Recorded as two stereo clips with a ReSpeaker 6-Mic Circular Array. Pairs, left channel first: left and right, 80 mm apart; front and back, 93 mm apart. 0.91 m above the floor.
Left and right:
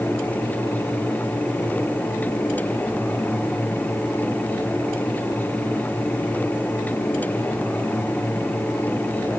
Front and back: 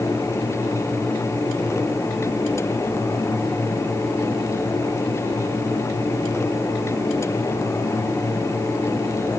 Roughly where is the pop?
No pop in this recording.